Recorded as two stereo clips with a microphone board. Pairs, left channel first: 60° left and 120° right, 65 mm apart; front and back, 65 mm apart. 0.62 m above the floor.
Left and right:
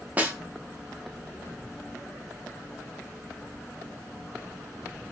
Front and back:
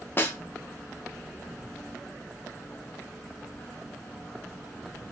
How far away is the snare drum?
About 0.5 m.